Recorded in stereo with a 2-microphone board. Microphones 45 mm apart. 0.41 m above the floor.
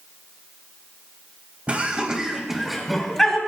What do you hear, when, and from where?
1.7 s laughter: 30° right (ahead or behind), 3 m; by 3.4 s 10° left (ahead or behind), 3.5 m